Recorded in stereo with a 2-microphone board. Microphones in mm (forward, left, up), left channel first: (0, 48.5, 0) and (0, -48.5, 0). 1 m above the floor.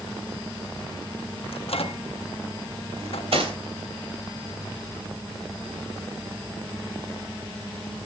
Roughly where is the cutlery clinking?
Right.